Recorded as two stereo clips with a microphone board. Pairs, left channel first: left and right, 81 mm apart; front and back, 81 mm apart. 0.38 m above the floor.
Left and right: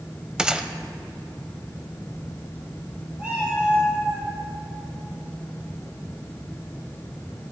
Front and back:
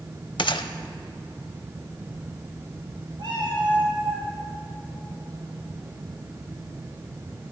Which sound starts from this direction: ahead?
A gunshot, at 0.4 s.